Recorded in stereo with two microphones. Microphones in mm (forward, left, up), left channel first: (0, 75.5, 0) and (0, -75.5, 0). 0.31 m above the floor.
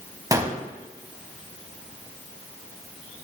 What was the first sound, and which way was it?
A gunshot, 25° right (ahead or behind).